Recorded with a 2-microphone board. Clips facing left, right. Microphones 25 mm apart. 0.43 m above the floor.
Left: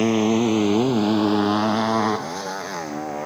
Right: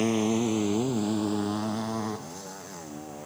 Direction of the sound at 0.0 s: 25° left (ahead or behind).